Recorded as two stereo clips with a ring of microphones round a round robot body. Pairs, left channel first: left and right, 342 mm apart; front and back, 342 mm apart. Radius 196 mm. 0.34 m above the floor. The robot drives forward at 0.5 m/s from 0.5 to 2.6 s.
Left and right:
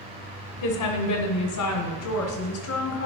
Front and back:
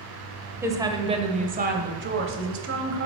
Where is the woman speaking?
100° left, 1.5 m; by 3.1 s 135° left, 1.9 m.